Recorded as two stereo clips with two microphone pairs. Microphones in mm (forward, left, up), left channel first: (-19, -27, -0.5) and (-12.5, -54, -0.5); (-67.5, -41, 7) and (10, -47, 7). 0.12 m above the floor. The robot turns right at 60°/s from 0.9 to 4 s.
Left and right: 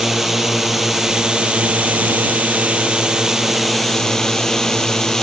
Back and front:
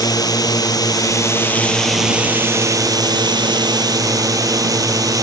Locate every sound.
0.0 s a drone: 160° right; by 5.2 s 30° left